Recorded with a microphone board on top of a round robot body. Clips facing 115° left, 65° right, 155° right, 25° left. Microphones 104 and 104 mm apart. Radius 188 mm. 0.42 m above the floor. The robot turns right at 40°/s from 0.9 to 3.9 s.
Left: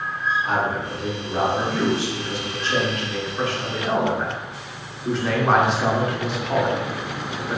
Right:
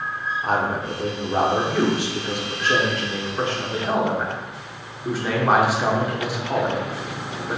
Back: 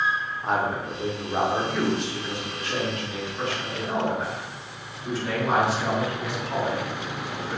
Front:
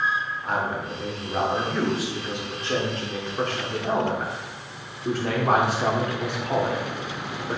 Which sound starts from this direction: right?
A man speaking, at 0.4 s.